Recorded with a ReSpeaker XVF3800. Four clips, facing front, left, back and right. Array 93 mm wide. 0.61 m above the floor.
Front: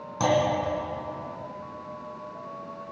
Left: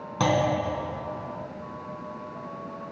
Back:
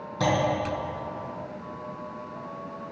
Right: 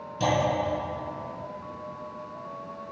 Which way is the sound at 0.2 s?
75° left.